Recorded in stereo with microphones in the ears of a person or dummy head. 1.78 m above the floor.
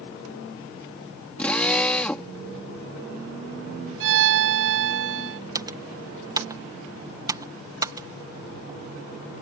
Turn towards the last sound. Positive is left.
turn(degrees=-20)  # may be behind; listen again after turning